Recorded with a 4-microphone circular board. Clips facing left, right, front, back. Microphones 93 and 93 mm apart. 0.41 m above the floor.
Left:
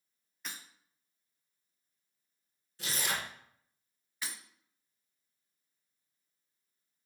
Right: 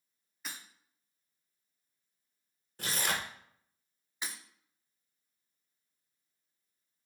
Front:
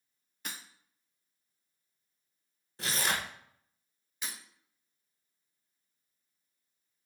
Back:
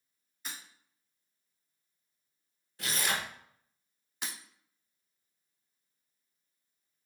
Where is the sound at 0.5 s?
5° right, 0.7 m.